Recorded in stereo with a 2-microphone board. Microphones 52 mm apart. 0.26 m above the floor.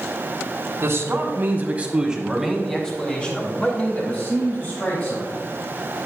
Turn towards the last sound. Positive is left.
turn(degrees=40)  # may be behind; listen again after turning